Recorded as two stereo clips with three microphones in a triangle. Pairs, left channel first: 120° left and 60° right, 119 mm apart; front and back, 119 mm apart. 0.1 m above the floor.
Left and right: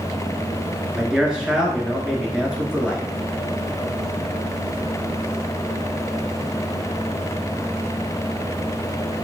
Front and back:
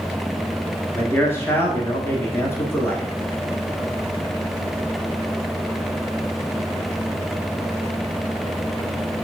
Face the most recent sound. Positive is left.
turn(degrees=15)